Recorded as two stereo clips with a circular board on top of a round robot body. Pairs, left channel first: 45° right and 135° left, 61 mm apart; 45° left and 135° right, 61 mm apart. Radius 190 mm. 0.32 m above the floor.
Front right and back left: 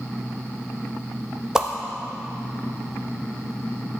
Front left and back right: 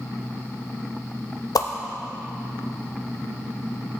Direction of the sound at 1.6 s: 55° left.